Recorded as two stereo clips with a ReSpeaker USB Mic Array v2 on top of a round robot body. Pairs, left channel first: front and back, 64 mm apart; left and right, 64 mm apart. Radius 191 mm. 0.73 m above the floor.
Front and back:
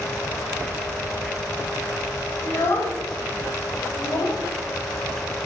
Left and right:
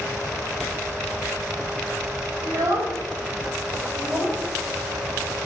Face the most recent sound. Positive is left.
turn(degrees=-15)